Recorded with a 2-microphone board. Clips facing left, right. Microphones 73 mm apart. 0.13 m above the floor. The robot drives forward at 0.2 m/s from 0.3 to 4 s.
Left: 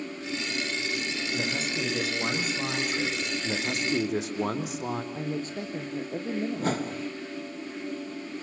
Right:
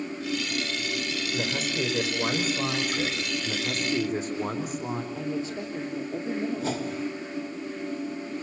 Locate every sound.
1.3 s a man speaking: 5° right (ahead or behind), 6.5 m
3.4 s a man speaking: 75° left (ahead or behind), 5.5 m; by 5.0 s 80° left, 5.5 m
5.1 s a woman speaking: 45° left (ahead or behind), 2.5 m
6.6 s a whoosh: 50° left (ahead or behind), 0.8 m